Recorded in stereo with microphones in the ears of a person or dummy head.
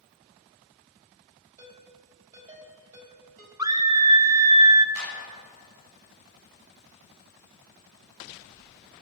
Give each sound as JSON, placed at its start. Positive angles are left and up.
{"t": 1.6, "sound": "a ringtone", "side_deg": -35, "distance_m": 3.5}
{"t": 3.6, "sound": "a scream", "side_deg": -20, "distance_m": 0.6}
{"t": 5.0, "sound": "a clap", "side_deg": -80, "distance_m": 5.5}